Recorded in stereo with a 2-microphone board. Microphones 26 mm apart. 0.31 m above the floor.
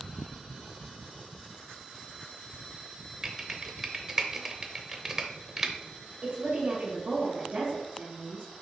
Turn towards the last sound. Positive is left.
turn(degrees=-40)  # may be behind; listen again after turning